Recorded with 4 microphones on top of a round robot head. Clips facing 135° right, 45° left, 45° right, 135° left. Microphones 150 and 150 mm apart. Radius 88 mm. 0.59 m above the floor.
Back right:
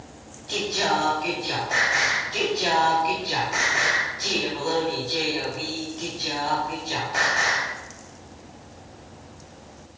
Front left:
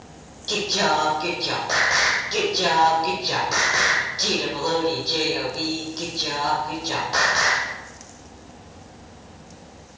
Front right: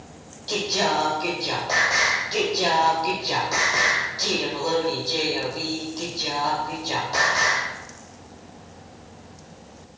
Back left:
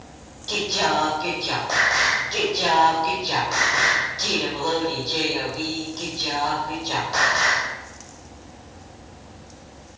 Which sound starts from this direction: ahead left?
Singing, at 0.5 s.